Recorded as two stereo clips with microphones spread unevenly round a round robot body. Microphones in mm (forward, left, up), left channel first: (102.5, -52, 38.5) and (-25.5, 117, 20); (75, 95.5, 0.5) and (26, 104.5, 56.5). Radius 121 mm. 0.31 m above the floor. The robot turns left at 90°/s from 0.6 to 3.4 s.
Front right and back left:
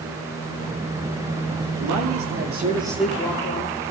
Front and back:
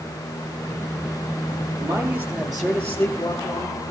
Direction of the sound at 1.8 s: 150° left.